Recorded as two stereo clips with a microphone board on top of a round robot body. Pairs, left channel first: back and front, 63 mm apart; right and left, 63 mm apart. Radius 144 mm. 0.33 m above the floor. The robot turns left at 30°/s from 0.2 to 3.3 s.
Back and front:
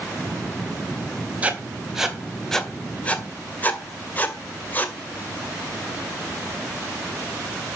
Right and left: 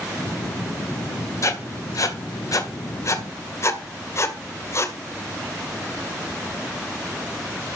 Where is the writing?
65° right, 2 m; by 5.0 s 120° right, 2 m.